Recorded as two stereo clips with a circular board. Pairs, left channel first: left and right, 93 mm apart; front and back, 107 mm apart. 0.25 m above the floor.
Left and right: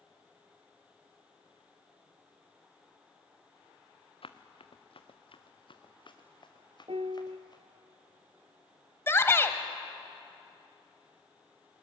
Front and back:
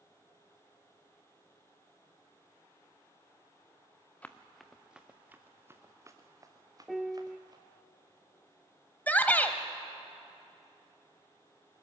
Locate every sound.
4.2 s running footsteps: 75° left, 1.3 m; by 7.6 s 130° left, 3 m
6.9 s a piano: 90° right, 0.7 m
9.1 s a shout: 60° left, 1.0 m